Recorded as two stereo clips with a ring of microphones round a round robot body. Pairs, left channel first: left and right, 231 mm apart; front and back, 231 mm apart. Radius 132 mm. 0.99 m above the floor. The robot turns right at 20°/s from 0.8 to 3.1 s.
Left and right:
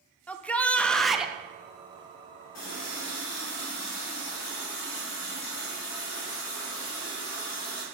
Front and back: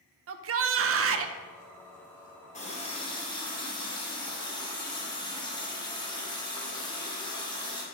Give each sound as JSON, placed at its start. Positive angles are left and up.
{"t": 0.3, "sound": "a shout", "azimuth_deg": 175, "distance_m": 0.6}
{"t": 2.5, "sound": "a running tap", "azimuth_deg": 60, "distance_m": 2.0}